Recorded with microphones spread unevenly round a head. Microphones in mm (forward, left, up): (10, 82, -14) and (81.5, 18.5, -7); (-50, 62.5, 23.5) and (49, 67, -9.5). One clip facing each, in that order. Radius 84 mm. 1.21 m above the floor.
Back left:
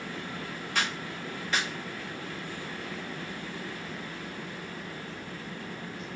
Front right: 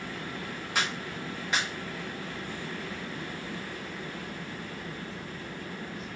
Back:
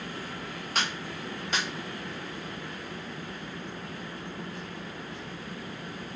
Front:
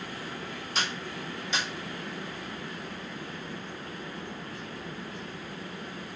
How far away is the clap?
About 0.8 m.